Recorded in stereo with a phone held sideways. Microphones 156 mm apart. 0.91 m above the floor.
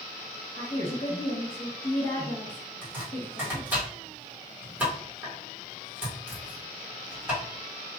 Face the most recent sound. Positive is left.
turn(degrees=-15)  # may be behind; listen again after turning